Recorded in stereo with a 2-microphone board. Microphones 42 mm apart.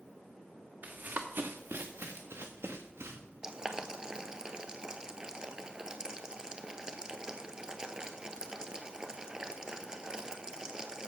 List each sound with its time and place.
0.8 s running footsteps: 45° right (ahead or behind), 1.2 m; by 3.2 s 85° right, 2 m
3.4 s boiling: 15° right (ahead or behind), 0.8 m